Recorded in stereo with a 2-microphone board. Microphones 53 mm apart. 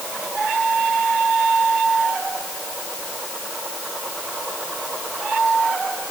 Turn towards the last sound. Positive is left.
No sound to turn to.